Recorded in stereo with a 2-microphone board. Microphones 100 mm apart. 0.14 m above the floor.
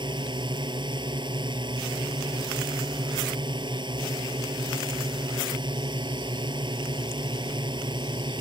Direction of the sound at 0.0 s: 50° right (ahead or behind).